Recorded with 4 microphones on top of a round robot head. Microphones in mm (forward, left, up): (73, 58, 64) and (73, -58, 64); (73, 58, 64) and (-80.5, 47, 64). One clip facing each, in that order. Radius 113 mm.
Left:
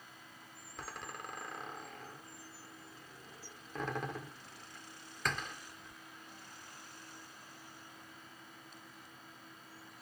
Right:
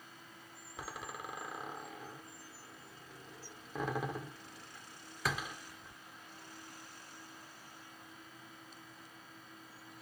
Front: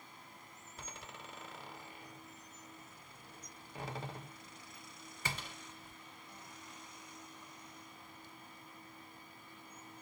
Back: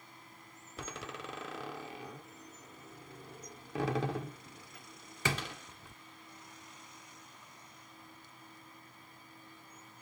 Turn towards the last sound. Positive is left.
turn(degrees=-175)